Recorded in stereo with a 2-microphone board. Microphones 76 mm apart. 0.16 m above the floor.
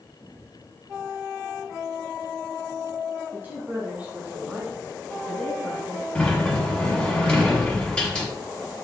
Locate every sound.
3.3 s a woman speaking: 25° right (ahead or behind), 2 m; by 6.0 s 20° left (ahead or behind), 1.6 m
6.2 s a sliding door: 15° left (ahead or behind), 1.6 m